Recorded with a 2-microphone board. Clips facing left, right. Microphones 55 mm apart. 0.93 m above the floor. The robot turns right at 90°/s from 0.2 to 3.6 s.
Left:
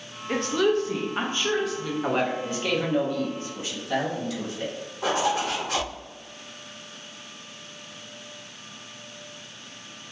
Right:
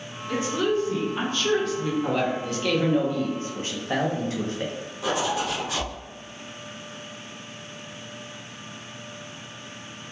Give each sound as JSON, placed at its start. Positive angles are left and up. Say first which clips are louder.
{"t": 0.3, "sound": "a woman speaking", "louder": "left 2 dB", "azimuth_deg": 55, "distance_m": 0.5}
{"t": 2.0, "sound": "a man speaking", "louder": "even", "azimuth_deg": 100, "distance_m": 0.6}
{"t": 5.0, "sound": "a zipper", "louder": "left 1 dB", "side_deg": 45, "distance_m": 0.8}